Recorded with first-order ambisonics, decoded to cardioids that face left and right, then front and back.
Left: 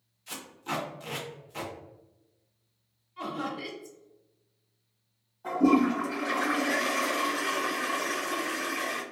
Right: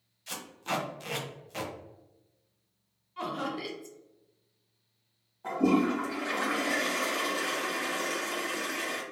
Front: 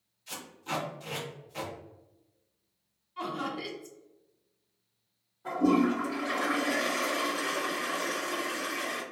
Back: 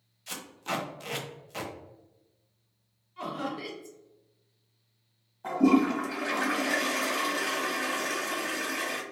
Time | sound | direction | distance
0.3 | tape being pulled | 145° right | 0.9 m
3.2 | laughter | 70° right | 1.0 m
5.4 | a toilet flushing | 165° right | 1.6 m